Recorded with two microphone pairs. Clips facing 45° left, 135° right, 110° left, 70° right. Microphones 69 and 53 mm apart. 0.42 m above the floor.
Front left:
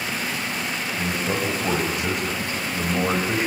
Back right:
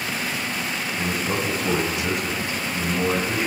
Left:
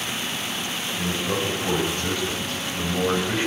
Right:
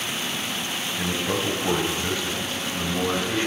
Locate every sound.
1.0 s a man speaking: 10° right, 3 m; by 3.5 s 40° left, 2.5 m